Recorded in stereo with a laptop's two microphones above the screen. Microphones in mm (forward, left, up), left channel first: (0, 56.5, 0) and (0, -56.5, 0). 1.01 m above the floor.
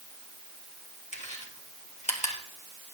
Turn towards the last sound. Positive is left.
turn(degrees=80)